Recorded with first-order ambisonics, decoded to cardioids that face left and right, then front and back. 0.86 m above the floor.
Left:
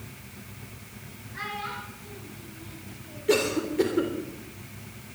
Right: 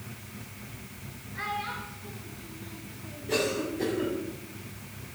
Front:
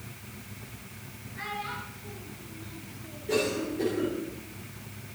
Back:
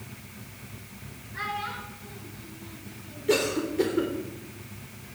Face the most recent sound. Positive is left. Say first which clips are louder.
# left 4 dB, back 3 dB
turn(degrees=125)